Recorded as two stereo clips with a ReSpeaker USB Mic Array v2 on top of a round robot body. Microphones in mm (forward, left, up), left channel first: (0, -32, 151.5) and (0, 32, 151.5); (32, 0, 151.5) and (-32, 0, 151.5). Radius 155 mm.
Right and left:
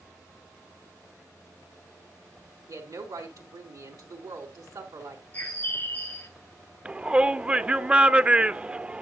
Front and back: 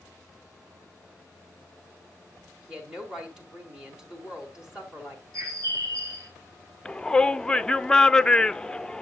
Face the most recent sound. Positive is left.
turn(degrees=60)